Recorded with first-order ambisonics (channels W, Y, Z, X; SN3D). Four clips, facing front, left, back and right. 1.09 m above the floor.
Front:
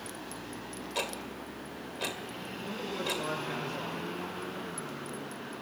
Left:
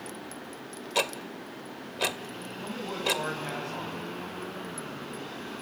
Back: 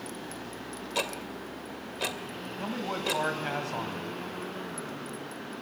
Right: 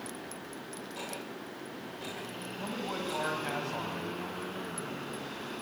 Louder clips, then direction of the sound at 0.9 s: Left 13 dB, back 3 dB; 105° left.